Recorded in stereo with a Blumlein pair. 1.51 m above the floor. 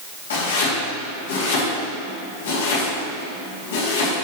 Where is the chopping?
60° left, 2.5 m.